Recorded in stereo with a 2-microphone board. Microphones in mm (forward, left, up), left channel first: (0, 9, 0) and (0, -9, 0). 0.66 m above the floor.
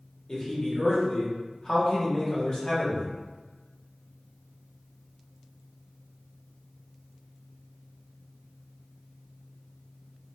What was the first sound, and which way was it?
A man speaking, 35° left (ahead or behind).